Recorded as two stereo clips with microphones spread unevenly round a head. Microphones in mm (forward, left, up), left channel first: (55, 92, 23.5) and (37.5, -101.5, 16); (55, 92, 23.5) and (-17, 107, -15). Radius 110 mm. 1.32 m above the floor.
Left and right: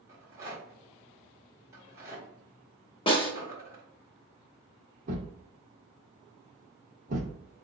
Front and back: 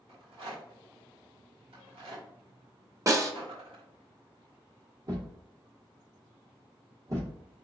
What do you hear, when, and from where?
0.1 s a rattle: 175° right, 1.5 m
3.1 s a snare drum: 105° left, 1.1 m
5.1 s a thud: 120° right, 0.9 m